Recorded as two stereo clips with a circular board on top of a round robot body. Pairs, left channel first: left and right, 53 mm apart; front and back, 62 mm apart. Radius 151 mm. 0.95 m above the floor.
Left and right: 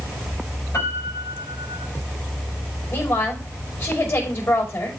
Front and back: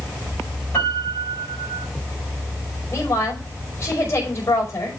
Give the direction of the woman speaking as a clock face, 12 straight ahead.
10 o'clock.